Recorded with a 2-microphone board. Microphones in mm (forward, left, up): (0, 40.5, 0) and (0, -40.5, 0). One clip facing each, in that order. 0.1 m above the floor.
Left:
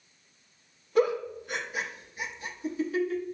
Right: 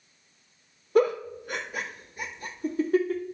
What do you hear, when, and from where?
0.9 s a giggle: 45° right (ahead or behind), 1.5 m